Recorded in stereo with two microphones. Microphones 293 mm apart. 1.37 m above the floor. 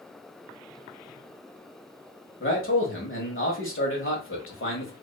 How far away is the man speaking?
About 1.2 m.